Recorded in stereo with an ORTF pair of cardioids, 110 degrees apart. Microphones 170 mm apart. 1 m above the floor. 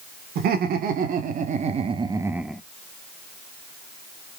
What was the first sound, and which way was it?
Laughter, 65° right.